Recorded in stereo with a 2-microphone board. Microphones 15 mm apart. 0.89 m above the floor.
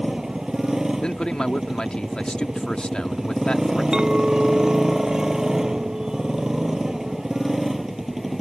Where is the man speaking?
70° left (ahead or behind).